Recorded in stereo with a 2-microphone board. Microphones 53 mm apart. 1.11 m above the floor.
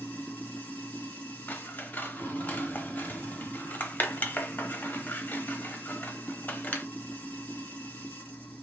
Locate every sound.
0.0 s running water: 30° left (ahead or behind), 1.5 m
1.5 s scissors: 35° left (ahead or behind), 0.8 m